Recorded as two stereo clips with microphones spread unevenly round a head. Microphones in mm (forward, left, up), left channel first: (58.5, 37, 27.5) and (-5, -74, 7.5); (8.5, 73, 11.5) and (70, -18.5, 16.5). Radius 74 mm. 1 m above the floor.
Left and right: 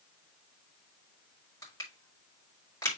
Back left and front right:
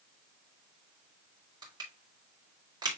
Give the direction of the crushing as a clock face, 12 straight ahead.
12 o'clock.